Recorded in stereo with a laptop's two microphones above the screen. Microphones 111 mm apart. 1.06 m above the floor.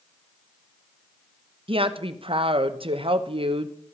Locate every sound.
1.7 s a woman speaking: 55° right (ahead or behind), 0.8 m